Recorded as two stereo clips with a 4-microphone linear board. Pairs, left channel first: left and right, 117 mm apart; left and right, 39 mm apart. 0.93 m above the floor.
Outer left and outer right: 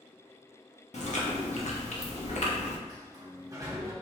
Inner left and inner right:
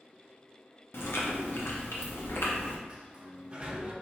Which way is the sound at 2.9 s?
30° right (ahead or behind).